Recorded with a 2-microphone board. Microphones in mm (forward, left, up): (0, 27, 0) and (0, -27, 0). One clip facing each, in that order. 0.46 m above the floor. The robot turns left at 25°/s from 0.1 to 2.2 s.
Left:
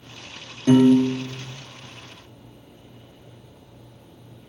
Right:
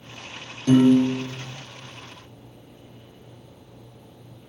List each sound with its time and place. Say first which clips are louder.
0.7 s a piano: left 1 dB; 25° left (ahead or behind), 1.6 m; by 1.6 s 5° left (ahead or behind), 1.6 m